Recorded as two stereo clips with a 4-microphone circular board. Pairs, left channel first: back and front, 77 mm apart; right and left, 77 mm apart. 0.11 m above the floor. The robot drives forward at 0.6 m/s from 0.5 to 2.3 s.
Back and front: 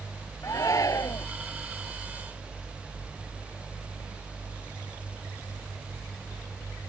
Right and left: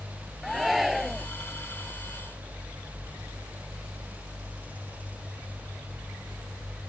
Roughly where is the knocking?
No knocking in this recording.